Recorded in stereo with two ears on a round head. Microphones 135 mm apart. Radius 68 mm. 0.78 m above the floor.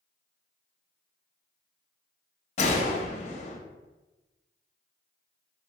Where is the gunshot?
45° left (ahead or behind), 0.6 m.